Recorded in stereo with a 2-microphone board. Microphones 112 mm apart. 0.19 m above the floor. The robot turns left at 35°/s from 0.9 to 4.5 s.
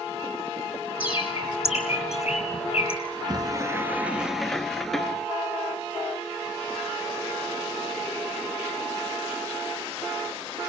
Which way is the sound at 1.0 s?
50° left (ahead or behind).